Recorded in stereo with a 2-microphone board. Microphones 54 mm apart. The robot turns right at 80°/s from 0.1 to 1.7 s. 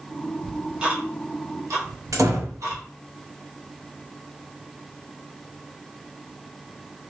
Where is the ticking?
10° left (ahead or behind), 1.0 m; by 2.8 s 85° right, 1.0 m.